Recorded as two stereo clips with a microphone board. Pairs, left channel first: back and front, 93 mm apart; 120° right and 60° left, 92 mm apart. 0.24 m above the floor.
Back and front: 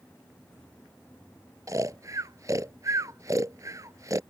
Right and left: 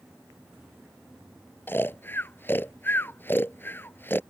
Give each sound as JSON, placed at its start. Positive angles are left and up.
{"t": 1.7, "sound": "snoring", "azimuth_deg": -55}